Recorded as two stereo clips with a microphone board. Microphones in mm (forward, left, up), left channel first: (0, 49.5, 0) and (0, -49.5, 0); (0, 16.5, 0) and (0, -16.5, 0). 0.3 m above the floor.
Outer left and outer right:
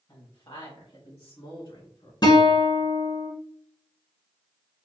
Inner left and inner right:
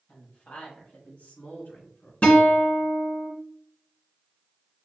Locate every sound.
0.1 s a woman speaking: 40° left (ahead or behind), 1.4 m; by 2.1 s 70° left (ahead or behind), 3 m
2.2 s a guitar: 45° left (ahead or behind), 1.1 m